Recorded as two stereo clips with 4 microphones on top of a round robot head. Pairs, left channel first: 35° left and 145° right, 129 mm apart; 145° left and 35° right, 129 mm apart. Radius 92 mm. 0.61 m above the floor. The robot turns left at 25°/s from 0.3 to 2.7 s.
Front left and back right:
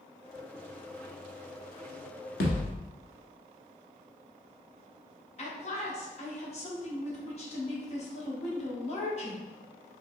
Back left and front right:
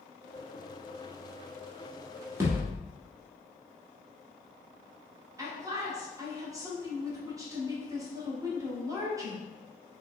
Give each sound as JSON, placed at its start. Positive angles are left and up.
{"t": 2.4, "sound": "a thud", "azimuth_deg": 35, "distance_m": 1.1}
{"t": 5.4, "sound": "a man speaking", "azimuth_deg": 25, "distance_m": 1.4}